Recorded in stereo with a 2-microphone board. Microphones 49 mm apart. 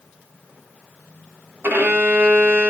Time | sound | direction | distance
1.6 | a violin | 45° right (ahead or behind) | 1.4 m